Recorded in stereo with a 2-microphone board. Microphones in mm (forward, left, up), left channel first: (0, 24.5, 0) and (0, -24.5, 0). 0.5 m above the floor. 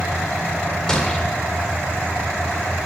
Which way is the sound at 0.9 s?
15° left (ahead or behind).